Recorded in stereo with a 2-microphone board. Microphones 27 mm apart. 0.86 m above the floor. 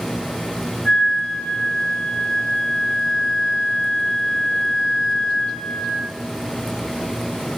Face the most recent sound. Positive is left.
turn(degrees=35)  # may be behind; listen again after turning